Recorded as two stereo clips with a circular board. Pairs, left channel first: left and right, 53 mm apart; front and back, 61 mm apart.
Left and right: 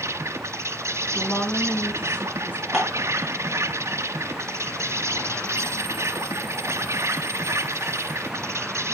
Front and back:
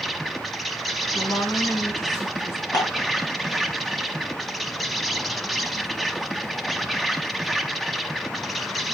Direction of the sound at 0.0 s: 90° right.